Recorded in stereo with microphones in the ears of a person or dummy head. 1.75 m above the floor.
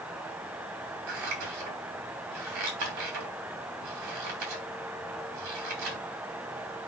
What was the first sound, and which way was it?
Scissors, 75° right (ahead or behind).